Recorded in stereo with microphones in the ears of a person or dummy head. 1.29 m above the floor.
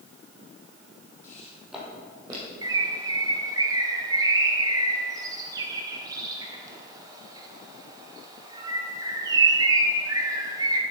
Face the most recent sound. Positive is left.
turn(degrees=-25)  # may be behind; listen again after turning